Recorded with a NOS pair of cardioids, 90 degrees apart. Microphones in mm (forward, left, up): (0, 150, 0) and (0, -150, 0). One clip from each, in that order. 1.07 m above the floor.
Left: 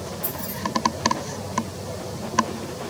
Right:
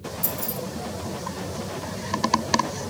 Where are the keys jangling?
60° right, 2 m.